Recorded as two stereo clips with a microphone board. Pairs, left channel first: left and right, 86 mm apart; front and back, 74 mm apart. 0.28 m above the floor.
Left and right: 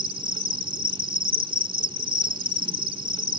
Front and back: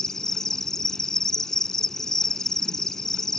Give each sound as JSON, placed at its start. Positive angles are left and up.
{"t": 0.0, "sound": "an insect", "azimuth_deg": -85}